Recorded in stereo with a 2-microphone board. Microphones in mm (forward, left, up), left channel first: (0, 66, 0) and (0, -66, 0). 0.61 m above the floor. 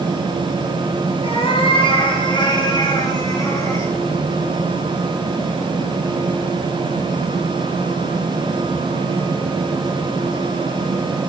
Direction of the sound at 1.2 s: 45° left (ahead or behind).